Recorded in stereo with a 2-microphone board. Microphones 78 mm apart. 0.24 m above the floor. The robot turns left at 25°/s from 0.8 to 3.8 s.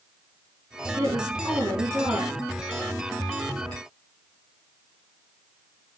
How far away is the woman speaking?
About 3 m.